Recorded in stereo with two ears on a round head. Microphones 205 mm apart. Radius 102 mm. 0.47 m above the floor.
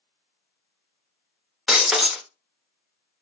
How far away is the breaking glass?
About 0.7 m.